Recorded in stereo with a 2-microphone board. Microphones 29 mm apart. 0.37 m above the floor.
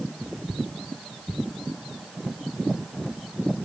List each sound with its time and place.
Only background noise.